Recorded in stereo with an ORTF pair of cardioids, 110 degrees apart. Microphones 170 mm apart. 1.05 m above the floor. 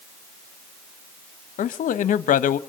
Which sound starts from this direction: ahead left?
A man speaking, at 1.6 s.